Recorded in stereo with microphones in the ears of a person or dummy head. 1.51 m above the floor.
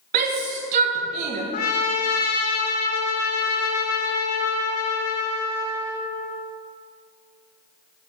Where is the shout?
35° right (ahead or behind), 0.9 m.